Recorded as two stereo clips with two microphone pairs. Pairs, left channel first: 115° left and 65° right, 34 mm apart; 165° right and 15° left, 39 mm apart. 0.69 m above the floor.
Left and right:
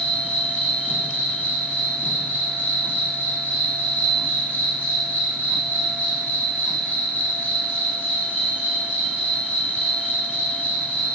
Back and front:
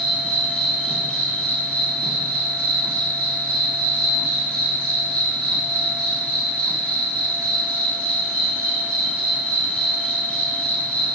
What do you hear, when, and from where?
0.0 s an insect: 130° left, 0.9 m